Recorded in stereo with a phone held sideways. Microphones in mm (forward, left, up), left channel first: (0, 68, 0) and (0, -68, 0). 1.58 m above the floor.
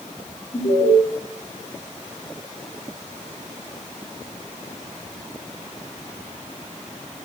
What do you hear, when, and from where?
0.5 s an alarm: 35° left (ahead or behind), 4.5 m